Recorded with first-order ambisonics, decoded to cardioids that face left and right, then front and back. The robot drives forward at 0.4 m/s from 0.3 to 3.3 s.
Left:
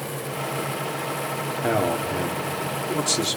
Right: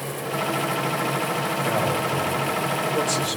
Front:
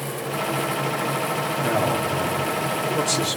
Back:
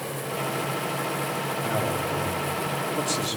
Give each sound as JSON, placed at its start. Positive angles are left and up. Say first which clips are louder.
{"t": 1.6, "sound": "a man speaking", "louder": "left 3 dB, front 6 dB", "azimuth_deg": 70, "distance_m": 4.0}